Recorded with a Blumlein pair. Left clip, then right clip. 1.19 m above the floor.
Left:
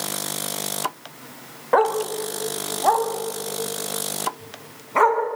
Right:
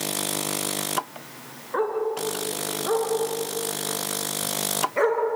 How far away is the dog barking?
About 2.5 m.